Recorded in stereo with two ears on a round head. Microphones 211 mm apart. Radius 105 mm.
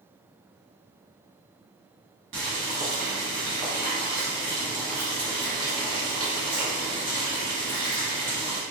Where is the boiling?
50° right (ahead or behind), 1.1 m.